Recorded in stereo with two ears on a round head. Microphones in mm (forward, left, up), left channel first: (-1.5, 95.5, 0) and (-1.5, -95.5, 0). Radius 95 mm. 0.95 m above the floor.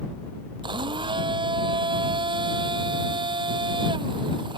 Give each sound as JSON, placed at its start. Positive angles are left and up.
{"t": 0.6, "sound": "a blender", "side_deg": -25}